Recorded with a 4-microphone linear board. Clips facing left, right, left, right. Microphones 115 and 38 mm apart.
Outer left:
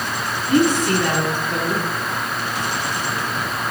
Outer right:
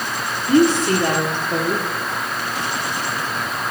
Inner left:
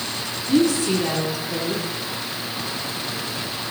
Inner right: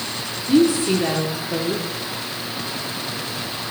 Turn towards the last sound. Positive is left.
turn(degrees=-30)  # may be behind; listen again after turning